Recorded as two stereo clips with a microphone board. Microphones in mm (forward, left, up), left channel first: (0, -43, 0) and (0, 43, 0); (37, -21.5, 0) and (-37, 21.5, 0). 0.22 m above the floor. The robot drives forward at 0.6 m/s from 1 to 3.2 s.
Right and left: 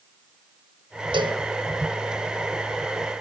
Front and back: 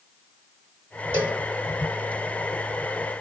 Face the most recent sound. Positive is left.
turn(degrees=100)